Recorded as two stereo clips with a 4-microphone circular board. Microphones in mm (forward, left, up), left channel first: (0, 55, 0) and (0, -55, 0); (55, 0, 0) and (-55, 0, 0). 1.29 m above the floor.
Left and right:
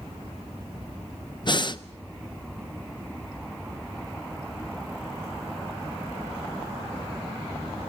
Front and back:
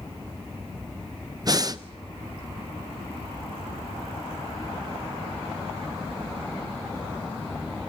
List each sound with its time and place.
1.4 s breathing: 130° left, 0.6 m